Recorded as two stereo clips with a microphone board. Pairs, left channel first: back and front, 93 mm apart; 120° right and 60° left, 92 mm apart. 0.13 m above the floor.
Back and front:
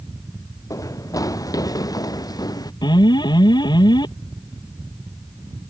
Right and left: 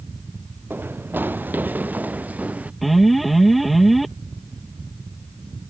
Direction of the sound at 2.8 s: 150° left.